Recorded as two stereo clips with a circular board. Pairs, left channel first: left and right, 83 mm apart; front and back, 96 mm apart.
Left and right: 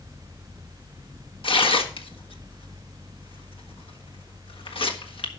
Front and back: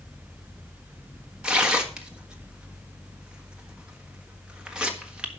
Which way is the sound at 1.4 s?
100° left.